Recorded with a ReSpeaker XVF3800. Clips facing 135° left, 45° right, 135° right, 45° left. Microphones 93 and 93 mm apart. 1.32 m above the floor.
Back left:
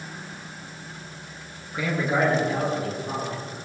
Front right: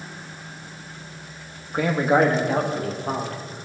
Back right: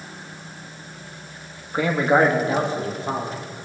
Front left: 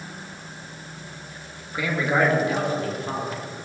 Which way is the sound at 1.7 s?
85° right.